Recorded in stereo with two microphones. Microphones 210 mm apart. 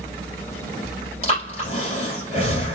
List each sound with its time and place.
1.2 s breathing: 25° left (ahead or behind), 3 m